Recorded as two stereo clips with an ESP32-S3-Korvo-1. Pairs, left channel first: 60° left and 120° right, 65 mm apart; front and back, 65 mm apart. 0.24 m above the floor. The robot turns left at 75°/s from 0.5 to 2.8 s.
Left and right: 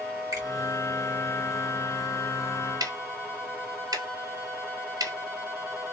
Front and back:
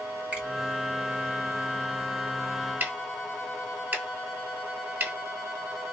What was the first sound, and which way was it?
A finger snap, 110° right.